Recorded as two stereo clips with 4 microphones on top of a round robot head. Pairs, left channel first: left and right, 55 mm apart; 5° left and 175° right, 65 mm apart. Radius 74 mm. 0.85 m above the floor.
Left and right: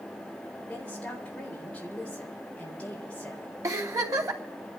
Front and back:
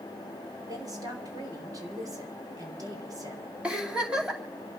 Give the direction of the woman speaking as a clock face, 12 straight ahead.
7 o'clock.